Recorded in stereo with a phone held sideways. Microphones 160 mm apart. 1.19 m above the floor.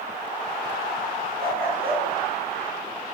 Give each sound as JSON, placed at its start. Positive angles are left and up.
{"t": 1.4, "sound": "a dog barking", "side_deg": -75, "distance_m": 6.5}